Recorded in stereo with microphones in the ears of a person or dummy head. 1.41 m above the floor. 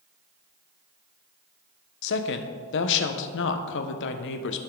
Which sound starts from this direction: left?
A woman speaking, at 2.0 s.